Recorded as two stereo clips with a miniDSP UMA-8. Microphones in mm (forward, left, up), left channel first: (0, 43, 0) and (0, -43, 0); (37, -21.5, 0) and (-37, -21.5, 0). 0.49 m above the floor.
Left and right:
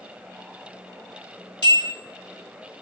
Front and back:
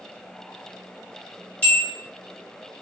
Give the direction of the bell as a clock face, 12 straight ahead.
2 o'clock.